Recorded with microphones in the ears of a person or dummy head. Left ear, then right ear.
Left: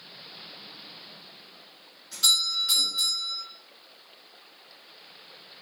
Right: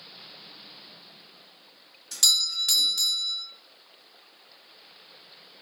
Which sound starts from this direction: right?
A doorbell, at 2.1 s.